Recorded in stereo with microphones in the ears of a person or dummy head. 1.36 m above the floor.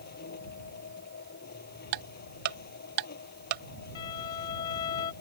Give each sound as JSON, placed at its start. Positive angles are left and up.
{"t": 0.0, "sound": "a machine running", "side_deg": 55}
{"t": 1.9, "sound": "ticking", "side_deg": -50}
{"t": 4.0, "sound": "a violin", "side_deg": 20}